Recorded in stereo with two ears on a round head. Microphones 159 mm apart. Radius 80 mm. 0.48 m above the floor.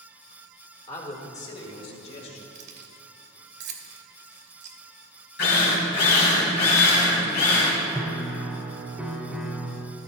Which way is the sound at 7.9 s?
5° right (ahead or behind).